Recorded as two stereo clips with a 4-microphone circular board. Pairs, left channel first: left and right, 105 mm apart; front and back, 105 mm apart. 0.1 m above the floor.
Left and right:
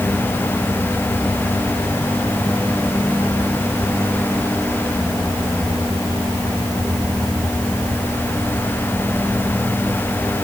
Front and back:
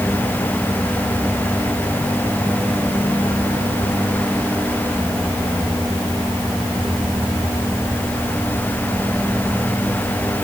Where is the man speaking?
No man speaking in this recording.